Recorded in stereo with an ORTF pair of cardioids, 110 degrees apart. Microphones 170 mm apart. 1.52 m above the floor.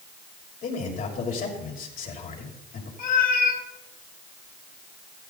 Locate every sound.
0.6 s a man speaking: 55° left, 7 m
3.0 s a cat meowing: 60° left, 3.5 m